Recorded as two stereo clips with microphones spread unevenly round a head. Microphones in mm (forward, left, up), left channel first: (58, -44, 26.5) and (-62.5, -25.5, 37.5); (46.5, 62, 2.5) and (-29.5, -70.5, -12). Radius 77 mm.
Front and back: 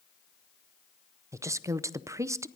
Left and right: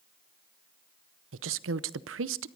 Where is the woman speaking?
120° right, 0.7 m.